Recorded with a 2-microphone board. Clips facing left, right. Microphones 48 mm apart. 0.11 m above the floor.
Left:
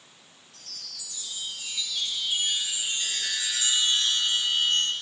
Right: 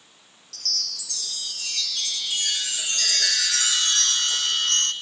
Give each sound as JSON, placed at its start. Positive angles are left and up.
{"t": 0.5, "sound": "a chime", "side_deg": -80, "distance_m": 1.0}